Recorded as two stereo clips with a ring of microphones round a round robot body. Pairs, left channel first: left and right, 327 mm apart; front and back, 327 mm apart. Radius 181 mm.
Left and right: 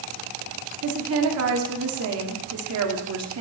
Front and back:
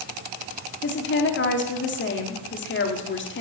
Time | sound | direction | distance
0.8 | a woman speaking | 50° right | 1.6 m